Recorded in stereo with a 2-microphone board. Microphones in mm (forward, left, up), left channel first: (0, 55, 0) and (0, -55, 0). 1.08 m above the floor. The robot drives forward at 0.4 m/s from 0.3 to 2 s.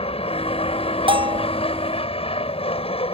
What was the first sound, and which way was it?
An aircraft, 60° left (ahead or behind).